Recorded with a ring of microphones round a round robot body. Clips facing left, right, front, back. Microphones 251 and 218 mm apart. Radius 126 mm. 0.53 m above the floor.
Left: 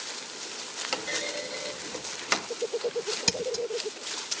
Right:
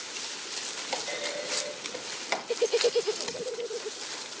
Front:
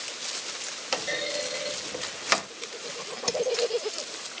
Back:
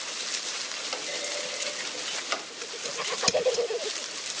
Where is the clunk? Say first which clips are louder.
Left 1 dB, front 5 dB; 25° left, 1.0 m.